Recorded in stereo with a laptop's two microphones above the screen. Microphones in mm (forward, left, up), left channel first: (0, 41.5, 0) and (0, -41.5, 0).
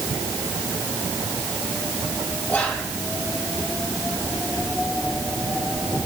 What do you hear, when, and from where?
2.5 s whispering: 20° left (ahead or behind), 2 m